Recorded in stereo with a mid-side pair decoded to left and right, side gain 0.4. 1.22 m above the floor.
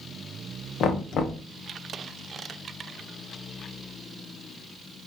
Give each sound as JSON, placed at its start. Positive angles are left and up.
{"t": 0.8, "sound": "knocking", "azimuth_deg": 70, "distance_m": 0.8}